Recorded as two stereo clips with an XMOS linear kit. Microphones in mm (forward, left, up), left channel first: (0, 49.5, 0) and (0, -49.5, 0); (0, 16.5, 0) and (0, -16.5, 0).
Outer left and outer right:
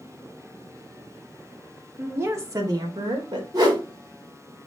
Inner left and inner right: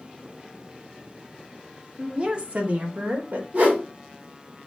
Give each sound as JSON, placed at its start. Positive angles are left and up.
{"t": 2.0, "sound": "a woman speaking", "side_deg": -20, "distance_m": 1.1}
{"t": 3.5, "sound": "a whoosh", "side_deg": -40, "distance_m": 1.6}